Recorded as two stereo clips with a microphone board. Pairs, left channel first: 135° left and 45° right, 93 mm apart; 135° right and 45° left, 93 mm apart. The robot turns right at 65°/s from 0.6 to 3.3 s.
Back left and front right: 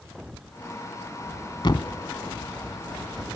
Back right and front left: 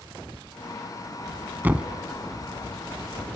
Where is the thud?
110° left, 0.9 m; by 1.9 s 130° left, 0.9 m.